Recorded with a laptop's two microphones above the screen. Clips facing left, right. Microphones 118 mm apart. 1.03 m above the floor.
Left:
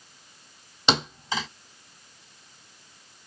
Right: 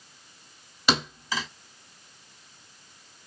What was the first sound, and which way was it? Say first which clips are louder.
A thud: left 1 dB; 25° left (ahead or behind).